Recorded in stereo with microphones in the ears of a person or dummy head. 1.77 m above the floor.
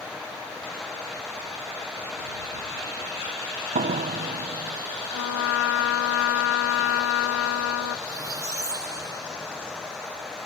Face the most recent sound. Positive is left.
turn(degrees=-15)  # may be behind; listen again after turning